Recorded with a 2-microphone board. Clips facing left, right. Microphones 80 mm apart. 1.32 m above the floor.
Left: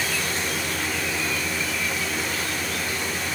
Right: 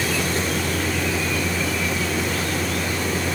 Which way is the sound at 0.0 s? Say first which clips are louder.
Right 4 dB; 65° right (ahead or behind).